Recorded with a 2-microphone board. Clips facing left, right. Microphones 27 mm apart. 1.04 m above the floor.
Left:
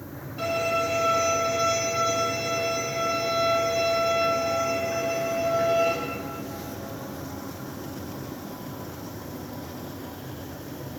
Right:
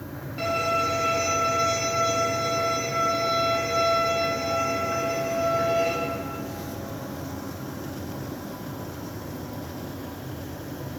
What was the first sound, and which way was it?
A violin, 45° right (ahead or behind).